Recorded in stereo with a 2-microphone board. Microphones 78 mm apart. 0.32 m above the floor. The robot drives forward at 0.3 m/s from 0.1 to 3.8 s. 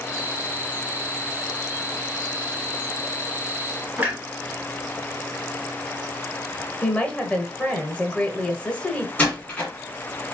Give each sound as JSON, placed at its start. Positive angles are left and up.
{"t": 4.0, "sound": "a clunk", "side_deg": -20, "distance_m": 2.0}
{"t": 6.8, "sound": "a woman speaking", "side_deg": 15, "distance_m": 0.9}
{"t": 9.2, "sound": "a door slam", "side_deg": 20, "distance_m": 1.7}